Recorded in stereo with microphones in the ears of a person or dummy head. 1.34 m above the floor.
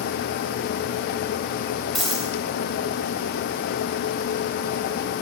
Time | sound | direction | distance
1.9 | a dropped coin | 5° left (ahead or behind) | 3.5 m